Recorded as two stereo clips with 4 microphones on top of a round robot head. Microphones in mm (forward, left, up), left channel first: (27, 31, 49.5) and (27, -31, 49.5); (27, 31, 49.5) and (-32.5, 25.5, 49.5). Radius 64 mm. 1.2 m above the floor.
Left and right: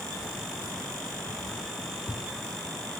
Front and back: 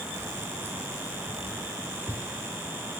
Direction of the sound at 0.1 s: 135° left.